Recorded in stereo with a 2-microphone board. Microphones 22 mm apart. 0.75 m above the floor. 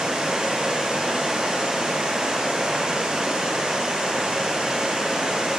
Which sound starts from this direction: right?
Running water, at 0.0 s.